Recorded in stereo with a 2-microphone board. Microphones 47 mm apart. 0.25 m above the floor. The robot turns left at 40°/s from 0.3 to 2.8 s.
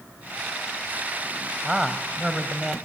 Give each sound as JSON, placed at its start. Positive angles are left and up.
{"t": 1.6, "sound": "a man speaking", "side_deg": -10, "distance_m": 0.9}